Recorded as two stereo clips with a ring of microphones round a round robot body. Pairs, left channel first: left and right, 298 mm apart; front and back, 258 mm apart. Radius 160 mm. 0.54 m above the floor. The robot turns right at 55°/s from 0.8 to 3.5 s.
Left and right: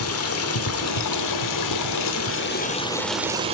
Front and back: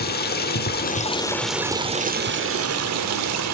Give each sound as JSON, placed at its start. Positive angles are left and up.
{"t": 0.0, "sound": "running water", "azimuth_deg": 50, "distance_m": 1.3}